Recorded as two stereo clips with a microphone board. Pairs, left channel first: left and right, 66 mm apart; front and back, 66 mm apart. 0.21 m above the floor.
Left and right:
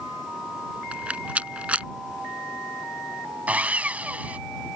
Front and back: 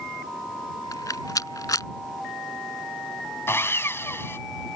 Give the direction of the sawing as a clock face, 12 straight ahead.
1 o'clock.